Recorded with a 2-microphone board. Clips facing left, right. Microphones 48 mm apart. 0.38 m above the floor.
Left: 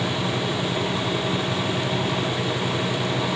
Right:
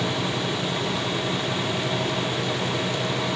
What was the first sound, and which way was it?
Only background noise.